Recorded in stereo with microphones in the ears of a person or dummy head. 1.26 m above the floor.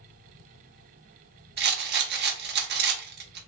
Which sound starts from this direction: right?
A rattle, at 1.6 s.